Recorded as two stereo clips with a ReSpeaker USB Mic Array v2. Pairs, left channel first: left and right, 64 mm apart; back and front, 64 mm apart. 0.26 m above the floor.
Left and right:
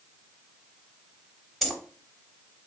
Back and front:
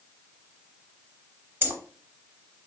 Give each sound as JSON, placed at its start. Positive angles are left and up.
{"t": 1.6, "sound": "keys jangling", "azimuth_deg": 0, "distance_m": 0.7}